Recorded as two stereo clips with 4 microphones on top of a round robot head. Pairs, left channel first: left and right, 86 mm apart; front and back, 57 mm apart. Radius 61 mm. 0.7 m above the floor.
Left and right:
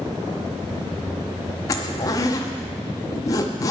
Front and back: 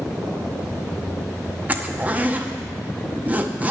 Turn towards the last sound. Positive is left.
turn(degrees=125)